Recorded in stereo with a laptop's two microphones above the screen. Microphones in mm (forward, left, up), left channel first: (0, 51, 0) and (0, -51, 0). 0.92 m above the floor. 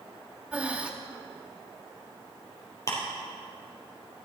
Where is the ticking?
30° left (ahead or behind), 3.5 m.